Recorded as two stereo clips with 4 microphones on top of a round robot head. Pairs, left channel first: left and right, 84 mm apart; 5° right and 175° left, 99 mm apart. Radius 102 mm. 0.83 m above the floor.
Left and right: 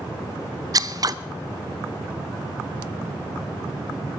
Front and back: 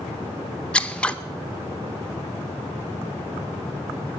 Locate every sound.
0.7 s scissors: 80° right, 0.6 m